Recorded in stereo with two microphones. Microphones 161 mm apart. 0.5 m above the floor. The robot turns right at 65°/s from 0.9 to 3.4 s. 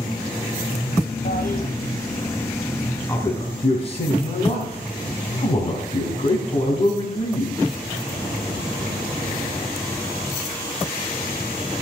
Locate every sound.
1.2 s a toilet flushing: 75° left (ahead or behind), 1.7 m; by 1.7 s 45° left (ahead or behind), 1.7 m
3.1 s a man speaking: 15° left (ahead or behind), 4 m; by 7.6 s 35° left (ahead or behind), 4 m